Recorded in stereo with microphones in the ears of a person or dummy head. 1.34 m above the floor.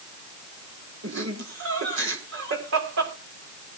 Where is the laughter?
70° right (ahead or behind), 5 m.